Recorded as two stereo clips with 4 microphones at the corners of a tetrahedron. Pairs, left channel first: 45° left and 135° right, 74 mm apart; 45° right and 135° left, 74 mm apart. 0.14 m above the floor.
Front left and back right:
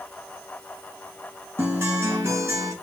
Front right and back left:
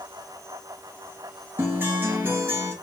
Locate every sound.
1.6 s a guitar: 175° right, 2.0 m